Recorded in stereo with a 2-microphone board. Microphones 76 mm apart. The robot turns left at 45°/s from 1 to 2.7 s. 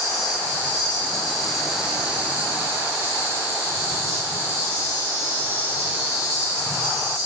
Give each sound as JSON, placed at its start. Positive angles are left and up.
{"t": 0.0, "sound": "an insect", "azimuth_deg": 25, "distance_m": 0.8}